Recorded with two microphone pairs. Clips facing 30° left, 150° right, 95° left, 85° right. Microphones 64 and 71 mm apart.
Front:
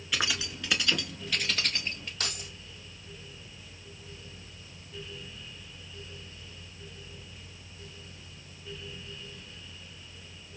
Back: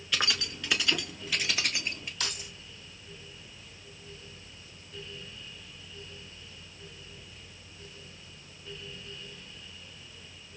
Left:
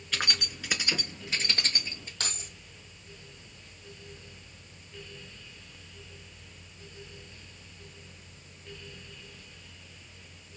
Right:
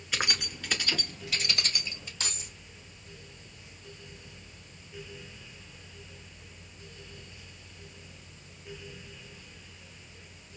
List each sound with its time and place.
0.1 s keys jangling: 40° right, 0.8 m; by 2.1 s 130° left, 1.4 m
2.2 s keys jangling: 70° left, 2.5 m